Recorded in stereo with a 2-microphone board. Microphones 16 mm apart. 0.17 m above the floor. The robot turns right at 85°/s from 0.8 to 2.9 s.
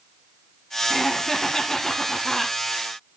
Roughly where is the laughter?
Ahead.